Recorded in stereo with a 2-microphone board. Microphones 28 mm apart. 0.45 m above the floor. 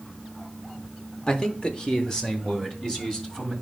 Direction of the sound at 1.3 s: 30° left (ahead or behind).